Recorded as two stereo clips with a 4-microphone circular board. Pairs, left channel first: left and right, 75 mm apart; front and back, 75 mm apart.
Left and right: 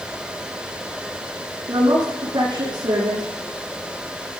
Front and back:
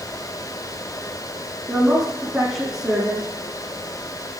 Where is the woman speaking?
95° right, 10 m.